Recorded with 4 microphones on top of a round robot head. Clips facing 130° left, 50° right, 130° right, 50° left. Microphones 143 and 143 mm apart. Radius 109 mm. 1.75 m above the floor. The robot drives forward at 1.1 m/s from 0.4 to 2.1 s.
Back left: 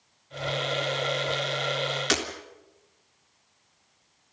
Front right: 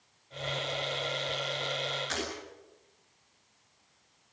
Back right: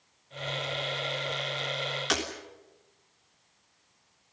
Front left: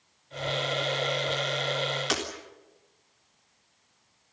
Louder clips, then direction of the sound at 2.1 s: Back left 10 dB, back right 3 dB; 140° left.